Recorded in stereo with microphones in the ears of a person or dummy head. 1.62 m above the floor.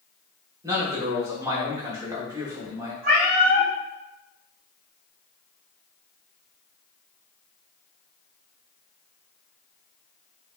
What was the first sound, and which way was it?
A man speaking, 20° right (ahead or behind).